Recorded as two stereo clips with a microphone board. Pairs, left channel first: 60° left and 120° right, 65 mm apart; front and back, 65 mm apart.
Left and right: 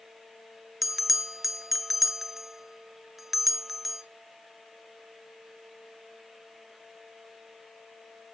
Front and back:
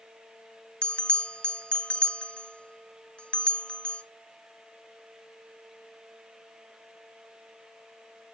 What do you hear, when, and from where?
0.8 s a bell: 40° right, 0.6 m